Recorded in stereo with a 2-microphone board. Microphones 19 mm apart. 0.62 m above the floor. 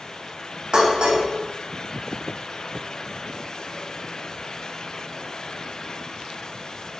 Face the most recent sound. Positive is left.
turn(degrees=-50)  # may be behind; listen again after turning